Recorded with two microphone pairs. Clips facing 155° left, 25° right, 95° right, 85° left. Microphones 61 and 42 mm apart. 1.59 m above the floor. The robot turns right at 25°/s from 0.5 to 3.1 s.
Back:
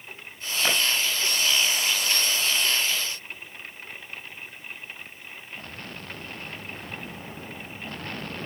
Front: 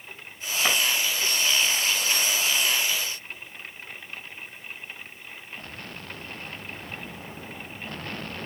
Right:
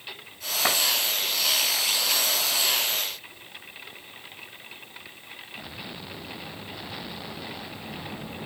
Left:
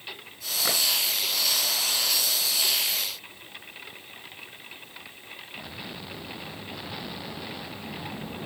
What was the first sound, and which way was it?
A clap, 125° right.